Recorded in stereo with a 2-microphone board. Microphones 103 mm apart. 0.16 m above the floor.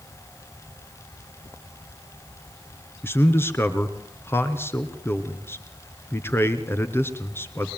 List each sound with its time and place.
3.0 s a man speaking: 25° left (ahead or behind), 2.5 m